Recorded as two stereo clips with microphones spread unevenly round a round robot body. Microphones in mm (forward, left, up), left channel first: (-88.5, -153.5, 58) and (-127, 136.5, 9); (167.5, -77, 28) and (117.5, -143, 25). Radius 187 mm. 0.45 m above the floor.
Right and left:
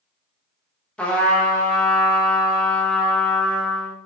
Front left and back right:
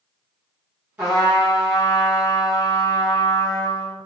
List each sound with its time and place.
1.0 s a trumpet: straight behind, 0.6 m